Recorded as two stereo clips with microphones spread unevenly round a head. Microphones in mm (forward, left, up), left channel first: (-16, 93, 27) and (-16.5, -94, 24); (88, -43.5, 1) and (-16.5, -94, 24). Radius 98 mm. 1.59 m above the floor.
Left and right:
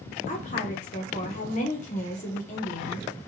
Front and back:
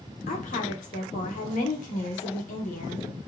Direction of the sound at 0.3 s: 40° left.